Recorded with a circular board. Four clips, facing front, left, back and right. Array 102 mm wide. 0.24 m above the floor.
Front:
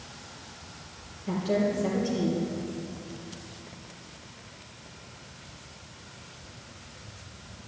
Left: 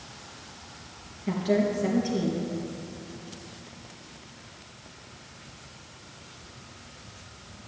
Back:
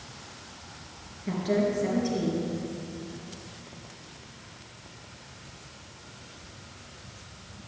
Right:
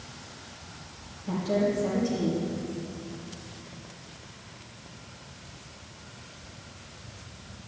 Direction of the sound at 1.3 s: 125° left.